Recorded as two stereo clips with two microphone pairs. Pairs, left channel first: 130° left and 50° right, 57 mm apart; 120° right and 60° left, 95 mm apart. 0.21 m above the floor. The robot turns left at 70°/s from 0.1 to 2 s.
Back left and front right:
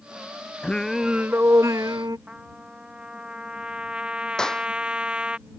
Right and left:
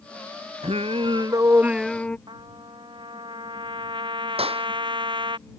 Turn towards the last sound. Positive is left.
turn(degrees=50)